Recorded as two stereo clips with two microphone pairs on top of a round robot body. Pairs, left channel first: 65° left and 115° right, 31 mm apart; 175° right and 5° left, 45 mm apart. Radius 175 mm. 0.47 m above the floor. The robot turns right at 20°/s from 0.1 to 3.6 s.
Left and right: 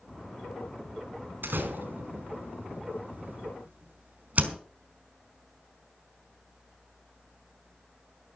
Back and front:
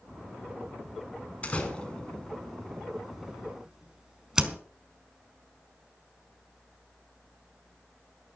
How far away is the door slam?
About 3.5 m.